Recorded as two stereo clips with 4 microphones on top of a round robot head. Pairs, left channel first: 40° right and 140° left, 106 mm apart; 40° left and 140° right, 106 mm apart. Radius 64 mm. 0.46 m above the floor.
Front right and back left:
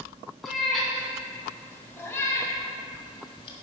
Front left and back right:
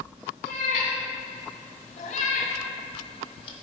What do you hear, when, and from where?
0.4 s a cat meowing: 55° left, 1.9 m; by 3.5 s straight ahead, 1.2 m